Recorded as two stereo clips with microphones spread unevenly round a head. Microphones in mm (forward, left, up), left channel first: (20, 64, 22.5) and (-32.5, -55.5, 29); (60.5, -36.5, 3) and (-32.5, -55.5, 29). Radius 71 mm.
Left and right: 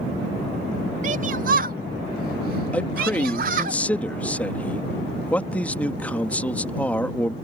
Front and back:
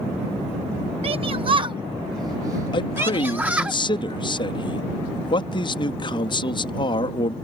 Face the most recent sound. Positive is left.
turn(degrees=-15)